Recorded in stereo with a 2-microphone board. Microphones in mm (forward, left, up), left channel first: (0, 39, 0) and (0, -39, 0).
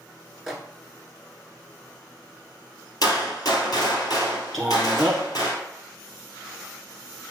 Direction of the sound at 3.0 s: 55° left (ahead or behind).